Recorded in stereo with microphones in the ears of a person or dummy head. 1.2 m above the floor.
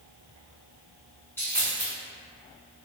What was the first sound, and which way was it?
A dropped coin, 15° left (ahead or behind).